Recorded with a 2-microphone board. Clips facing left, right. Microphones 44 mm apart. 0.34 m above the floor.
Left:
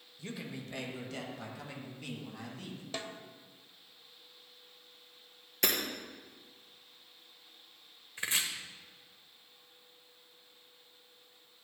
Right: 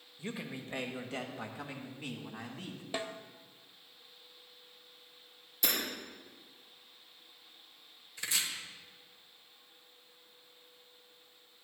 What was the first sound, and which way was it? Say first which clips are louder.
A man speaking: right 1 dB; 25° right (ahead or behind).